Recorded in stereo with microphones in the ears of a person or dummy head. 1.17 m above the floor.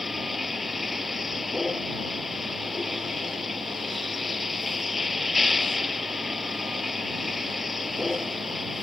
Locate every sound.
0.0 s a vehicle: centre (ahead or behind)